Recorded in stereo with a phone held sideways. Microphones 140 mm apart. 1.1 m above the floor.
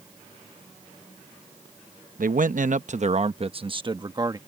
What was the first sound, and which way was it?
A man speaking, 80° right.